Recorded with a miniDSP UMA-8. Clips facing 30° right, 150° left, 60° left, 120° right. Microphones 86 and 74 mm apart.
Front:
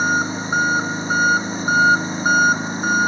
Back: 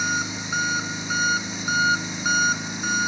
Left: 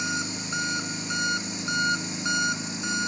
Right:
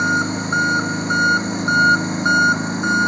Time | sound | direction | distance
0.0 | an engine running | 80° right | ?